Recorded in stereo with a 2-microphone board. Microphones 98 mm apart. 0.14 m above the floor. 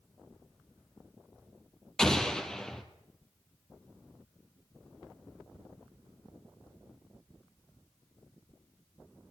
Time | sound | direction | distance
2.0 | an explosion | 5° left (ahead or behind) | 1.1 m